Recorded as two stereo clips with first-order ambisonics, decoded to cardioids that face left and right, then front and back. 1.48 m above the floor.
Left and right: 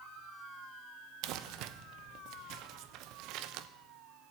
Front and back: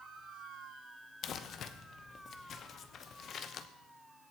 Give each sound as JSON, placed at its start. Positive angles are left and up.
{"t": 1.2, "sound": "crumpling", "azimuth_deg": -60, "distance_m": 0.9}